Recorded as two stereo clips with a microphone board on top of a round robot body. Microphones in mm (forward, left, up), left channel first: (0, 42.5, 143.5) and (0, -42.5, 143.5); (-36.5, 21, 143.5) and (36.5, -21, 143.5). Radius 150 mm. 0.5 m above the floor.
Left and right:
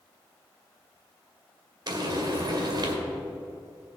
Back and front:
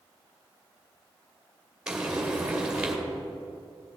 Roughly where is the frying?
Right.